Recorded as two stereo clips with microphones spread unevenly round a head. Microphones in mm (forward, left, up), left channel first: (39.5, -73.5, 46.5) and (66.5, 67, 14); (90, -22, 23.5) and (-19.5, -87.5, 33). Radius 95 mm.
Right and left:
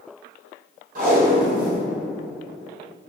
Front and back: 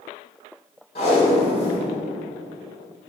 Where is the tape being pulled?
70° left, 1.1 m.